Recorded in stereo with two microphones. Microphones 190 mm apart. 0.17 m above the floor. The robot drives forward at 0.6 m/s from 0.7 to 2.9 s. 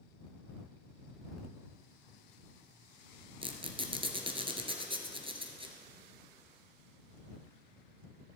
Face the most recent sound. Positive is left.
turn(degrees=-30)  # may be behind; listen again after turning